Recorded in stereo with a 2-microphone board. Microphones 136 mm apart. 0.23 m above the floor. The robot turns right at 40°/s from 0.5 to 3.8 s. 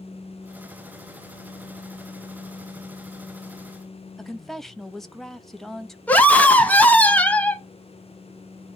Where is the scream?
10° left (ahead or behind), 1.6 m.